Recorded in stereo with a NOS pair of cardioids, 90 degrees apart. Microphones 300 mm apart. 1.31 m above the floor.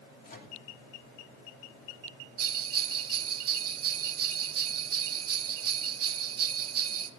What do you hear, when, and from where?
0.2 s a microwave: 30° left, 3 m
2.4 s a bell: 50° right, 1.2 m